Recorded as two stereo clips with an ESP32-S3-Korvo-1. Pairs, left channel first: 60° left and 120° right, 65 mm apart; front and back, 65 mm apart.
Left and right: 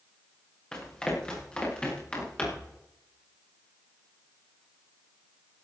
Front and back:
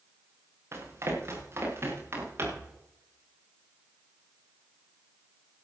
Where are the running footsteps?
140° left, 7.5 m; by 2.8 s 130° left, 9 m.